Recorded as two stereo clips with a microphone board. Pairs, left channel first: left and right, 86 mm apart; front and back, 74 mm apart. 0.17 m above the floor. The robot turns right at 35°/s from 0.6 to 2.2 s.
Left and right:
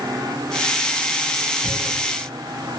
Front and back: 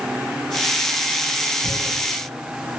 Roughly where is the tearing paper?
Behind.